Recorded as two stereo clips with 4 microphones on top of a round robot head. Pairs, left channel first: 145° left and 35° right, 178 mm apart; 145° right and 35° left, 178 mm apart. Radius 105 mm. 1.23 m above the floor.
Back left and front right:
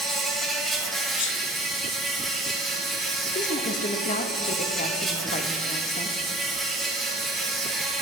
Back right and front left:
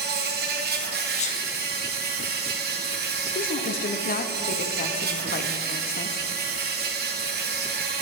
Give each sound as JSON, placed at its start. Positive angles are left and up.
{"t": 0.0, "sound": "an insect", "azimuth_deg": 55, "distance_m": 1.0}
{"t": 1.2, "sound": "a sneeze", "azimuth_deg": 160, "distance_m": 1.1}
{"t": 3.4, "sound": "a woman speaking", "azimuth_deg": -175, "distance_m": 0.6}